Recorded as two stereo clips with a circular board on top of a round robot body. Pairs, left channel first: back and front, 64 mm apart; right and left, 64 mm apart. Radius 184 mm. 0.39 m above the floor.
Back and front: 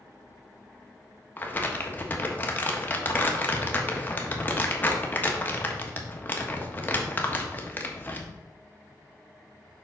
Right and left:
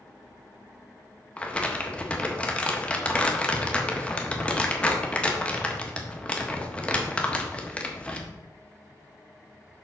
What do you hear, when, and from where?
1.4 s crumpling: 150° right, 1.4 m